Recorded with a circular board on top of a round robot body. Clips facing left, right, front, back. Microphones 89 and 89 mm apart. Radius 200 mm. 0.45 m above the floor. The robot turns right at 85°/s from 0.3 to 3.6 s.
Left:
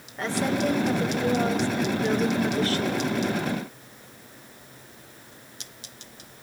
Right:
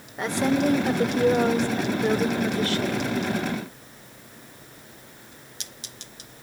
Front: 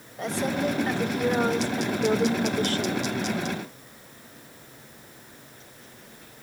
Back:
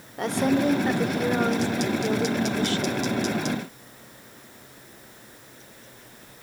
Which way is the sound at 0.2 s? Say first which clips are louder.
Right 3 dB, back 5 dB; 165° right.